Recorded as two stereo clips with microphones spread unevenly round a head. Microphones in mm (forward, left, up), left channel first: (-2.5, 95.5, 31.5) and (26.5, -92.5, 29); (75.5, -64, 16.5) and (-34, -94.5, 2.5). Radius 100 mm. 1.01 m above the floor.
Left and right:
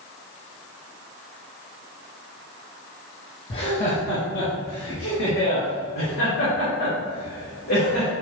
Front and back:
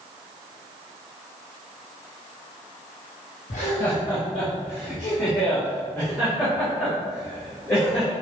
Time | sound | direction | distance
3.5 | laughter | 35° left | 1.0 m